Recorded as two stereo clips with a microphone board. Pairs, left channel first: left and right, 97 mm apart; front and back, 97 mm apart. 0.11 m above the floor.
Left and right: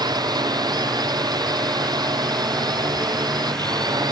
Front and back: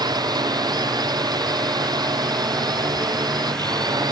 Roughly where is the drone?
Behind right.